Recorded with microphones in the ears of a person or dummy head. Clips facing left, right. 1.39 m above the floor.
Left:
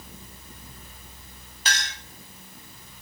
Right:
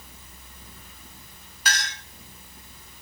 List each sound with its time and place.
1.6 s a clink: 25° left (ahead or behind), 0.6 m